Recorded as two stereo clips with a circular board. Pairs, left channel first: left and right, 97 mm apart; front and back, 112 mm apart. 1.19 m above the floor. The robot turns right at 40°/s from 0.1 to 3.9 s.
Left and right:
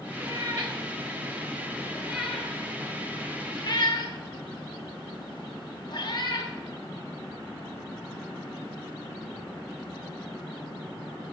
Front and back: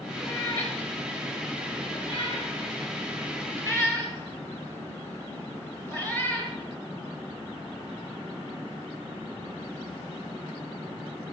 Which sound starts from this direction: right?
A cat meowing, at 0.2 s.